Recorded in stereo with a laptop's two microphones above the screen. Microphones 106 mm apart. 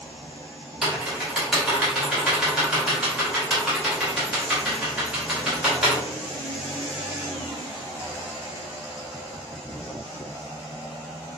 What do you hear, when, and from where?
0.8 s typing on a keyboard: 10° right (ahead or behind), 1.5 m